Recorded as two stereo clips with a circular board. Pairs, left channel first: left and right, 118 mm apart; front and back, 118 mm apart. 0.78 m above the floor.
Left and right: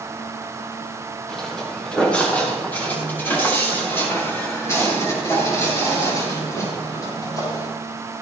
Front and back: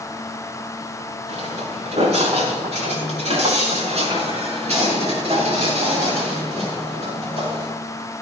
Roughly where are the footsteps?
Behind.